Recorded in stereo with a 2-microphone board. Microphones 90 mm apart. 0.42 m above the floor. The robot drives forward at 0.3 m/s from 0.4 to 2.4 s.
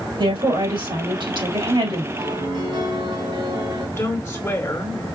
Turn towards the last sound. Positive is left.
turn(degrees=35)  # may be behind; listen again after turning